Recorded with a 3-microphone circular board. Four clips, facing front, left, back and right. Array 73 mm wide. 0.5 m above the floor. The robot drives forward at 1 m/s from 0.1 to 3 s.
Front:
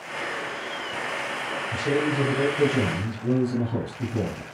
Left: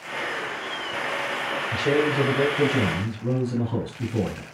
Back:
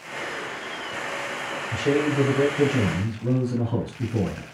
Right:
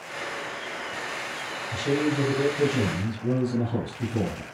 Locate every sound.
1.7 s a man speaking: 140° left, 2.5 m; by 4.4 s 155° left, 3.5 m